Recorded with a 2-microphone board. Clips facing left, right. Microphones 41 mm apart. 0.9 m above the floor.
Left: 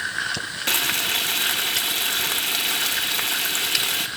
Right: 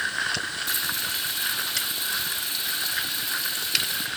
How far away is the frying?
About 0.9 m.